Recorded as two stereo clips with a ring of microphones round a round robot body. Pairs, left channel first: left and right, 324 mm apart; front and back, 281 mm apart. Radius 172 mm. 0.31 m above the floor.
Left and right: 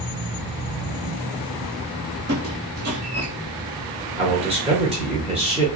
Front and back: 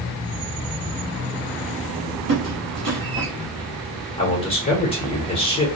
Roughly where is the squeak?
Behind right.